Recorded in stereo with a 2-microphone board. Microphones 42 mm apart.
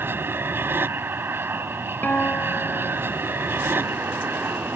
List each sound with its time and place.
0.0 s an aircraft: 55° right (ahead or behind)
2.0 s a guitar: 45° left (ahead or behind)